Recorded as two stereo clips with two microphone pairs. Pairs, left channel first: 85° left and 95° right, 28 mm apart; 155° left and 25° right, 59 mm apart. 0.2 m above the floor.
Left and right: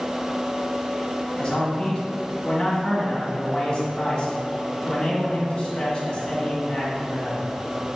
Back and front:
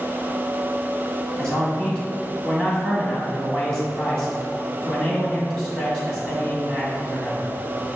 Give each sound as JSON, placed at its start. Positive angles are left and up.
{"t": 1.4, "sound": "a man speaking", "azimuth_deg": 105, "distance_m": 1.7}